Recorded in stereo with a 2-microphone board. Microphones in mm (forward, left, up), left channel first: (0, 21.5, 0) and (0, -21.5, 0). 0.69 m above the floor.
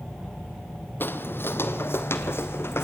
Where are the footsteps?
50° left (ahead or behind), 1.0 m; by 2.8 s 60° left (ahead or behind), 1.9 m.